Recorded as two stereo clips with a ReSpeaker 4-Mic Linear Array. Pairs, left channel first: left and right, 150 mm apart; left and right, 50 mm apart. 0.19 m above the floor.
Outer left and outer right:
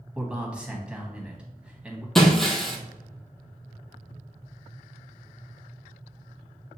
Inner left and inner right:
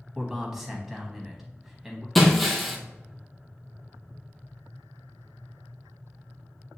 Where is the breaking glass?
Centre (ahead or behind), 0.9 m.